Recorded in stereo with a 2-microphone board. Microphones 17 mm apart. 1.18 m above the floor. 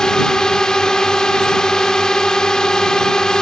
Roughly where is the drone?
Left.